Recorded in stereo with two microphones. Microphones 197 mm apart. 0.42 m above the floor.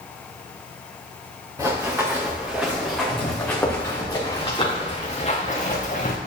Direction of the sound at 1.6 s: 15° right (ahead or behind).